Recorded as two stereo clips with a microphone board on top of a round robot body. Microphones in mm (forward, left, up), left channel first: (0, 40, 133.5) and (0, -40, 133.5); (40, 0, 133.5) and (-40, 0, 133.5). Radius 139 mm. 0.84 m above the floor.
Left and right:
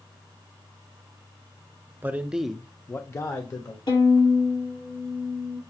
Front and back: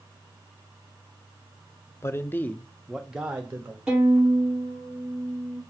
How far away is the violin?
About 3.5 m.